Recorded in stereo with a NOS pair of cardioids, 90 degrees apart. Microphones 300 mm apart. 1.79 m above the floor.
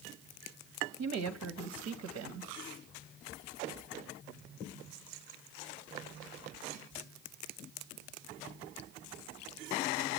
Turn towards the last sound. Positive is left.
turn(degrees=-60)